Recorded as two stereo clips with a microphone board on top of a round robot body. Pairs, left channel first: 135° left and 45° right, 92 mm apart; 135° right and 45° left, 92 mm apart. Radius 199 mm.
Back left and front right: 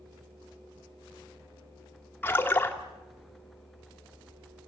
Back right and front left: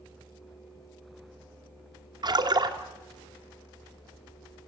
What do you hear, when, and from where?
2.2 s a splash: 70° left, 2 m